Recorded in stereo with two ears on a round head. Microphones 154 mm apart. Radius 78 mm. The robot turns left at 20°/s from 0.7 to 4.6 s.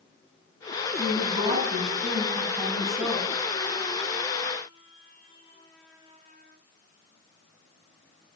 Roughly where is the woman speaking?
Behind right.